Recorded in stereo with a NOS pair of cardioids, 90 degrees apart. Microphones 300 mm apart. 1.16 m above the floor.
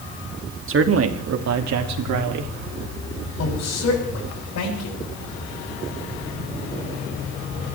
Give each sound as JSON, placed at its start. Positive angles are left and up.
{"t": 0.7, "sound": "a man speaking", "azimuth_deg": -45, "distance_m": 2.5}
{"t": 3.4, "sound": "a woman speaking", "azimuth_deg": 60, "distance_m": 8.0}